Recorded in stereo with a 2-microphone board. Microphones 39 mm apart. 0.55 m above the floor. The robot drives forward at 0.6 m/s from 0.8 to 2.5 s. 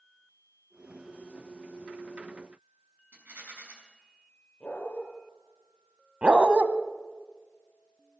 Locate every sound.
3.1 s a rattle: 75° right (ahead or behind), 5.5 m
4.6 s a dog barking: 35° left (ahead or behind), 5.5 m
6.2 s a dog barking: 35° right (ahead or behind), 0.9 m